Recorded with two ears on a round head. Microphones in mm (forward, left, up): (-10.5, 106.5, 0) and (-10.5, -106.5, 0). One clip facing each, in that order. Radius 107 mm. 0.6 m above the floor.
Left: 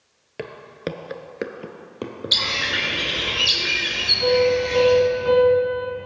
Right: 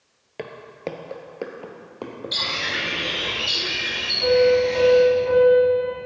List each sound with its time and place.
0.4 s footsteps: 10° left (ahead or behind), 0.8 m; by 2.7 s 20° left (ahead or behind), 1.8 m
2.3 s a bird: 60° left (ahead or behind), 2.5 m
4.2 s a piano: 90° left, 3 m